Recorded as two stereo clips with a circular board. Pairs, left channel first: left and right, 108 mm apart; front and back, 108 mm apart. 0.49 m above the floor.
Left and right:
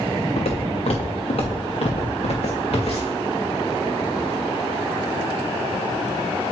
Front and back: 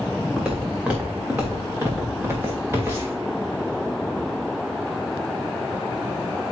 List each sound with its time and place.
0.4 s footsteps: 95° left, 2.5 m; by 3.2 s 115° left, 5 m